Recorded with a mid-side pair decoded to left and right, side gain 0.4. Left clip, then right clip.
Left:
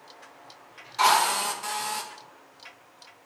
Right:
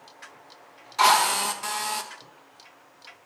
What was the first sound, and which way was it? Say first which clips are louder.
A drill: right 2 dB; 35° right.